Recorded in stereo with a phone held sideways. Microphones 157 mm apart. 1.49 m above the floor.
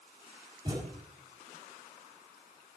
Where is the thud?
25° right (ahead or behind), 5.5 m.